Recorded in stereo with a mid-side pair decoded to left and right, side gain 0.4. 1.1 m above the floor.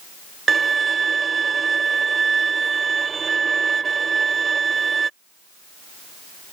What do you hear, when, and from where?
0.5 s a violin: 45° right